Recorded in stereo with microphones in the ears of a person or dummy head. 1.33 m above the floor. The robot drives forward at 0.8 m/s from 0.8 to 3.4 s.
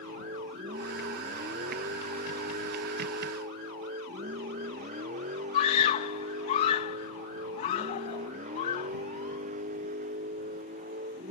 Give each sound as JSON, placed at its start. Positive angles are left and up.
{"t": 0.0, "sound": "a vehicle", "side_deg": -35}
{"t": 5.5, "sound": "a scream", "side_deg": 35}